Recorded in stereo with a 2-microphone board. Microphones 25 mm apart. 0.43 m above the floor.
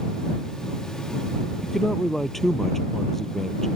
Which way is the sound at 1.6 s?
10° left (ahead or behind).